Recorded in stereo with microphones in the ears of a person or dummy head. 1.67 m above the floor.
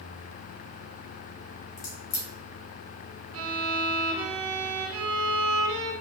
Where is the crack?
20° left (ahead or behind), 1.2 m.